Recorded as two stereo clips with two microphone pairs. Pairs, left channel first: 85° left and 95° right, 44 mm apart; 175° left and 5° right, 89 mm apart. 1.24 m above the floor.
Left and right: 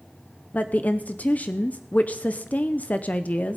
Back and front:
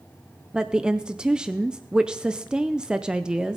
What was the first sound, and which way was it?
A woman speaking, 65° left.